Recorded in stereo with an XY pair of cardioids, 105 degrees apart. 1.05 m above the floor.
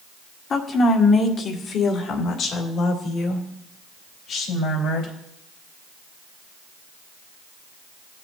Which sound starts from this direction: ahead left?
A woman speaking, at 0.5 s.